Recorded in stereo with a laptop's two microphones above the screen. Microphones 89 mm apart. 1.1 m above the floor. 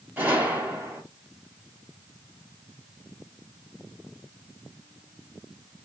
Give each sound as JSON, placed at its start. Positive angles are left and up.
{"t": 0.2, "sound": "a gunshot", "side_deg": -25, "distance_m": 1.3}